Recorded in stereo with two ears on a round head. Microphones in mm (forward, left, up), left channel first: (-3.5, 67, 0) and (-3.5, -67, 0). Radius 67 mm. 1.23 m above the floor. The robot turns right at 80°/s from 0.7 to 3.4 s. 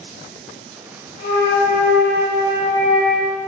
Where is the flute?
70° left, 1.1 m; by 3.3 s 125° right, 1.1 m.